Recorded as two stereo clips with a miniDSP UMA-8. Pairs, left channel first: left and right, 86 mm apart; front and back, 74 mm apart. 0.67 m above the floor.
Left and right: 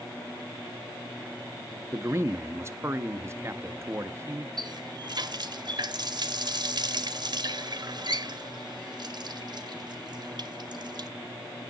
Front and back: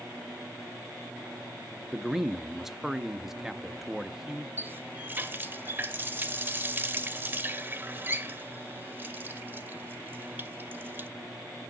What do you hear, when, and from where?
1.9 s a man speaking: 100° right, 0.5 m
4.6 s a running tap: 115° right, 0.7 m